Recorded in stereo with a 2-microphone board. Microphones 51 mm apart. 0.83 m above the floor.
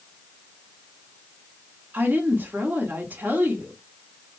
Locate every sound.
1.9 s a woman speaking: 40° right (ahead or behind), 1.6 m